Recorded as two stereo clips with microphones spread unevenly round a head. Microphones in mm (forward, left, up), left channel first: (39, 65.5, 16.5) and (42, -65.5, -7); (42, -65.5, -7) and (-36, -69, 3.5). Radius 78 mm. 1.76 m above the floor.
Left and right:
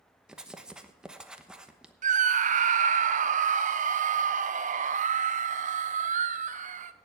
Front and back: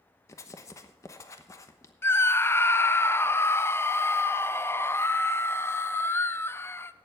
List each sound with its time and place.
0.3 s writing: 10° left, 1.0 m
2.0 s a scream: 60° right, 0.9 m